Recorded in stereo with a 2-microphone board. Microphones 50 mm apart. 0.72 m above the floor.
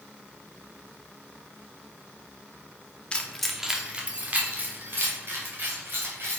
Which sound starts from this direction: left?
Keys jangling, at 3.1 s.